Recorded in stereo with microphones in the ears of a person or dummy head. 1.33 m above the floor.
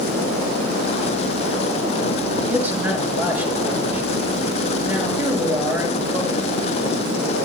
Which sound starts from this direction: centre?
A man speaking, at 2.5 s.